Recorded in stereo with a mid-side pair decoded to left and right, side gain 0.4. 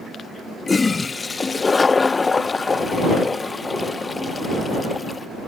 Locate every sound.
0.7 s a toilet flushing: 30° left